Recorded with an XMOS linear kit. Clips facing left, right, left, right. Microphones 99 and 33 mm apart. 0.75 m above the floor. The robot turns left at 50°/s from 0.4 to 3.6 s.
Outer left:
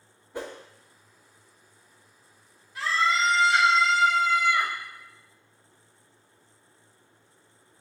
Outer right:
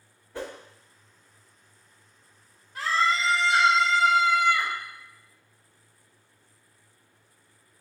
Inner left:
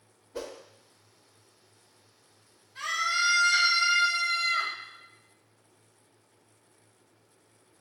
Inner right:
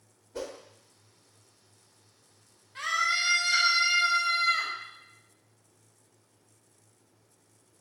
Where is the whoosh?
15° left (ahead or behind), 0.7 m; by 0.6 s 20° left (ahead or behind), 0.7 m.